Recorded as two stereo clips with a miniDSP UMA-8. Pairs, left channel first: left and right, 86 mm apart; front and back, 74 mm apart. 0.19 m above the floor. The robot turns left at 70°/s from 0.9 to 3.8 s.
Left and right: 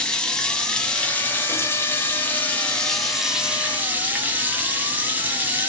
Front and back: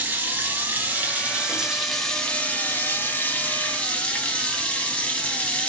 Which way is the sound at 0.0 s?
155° left.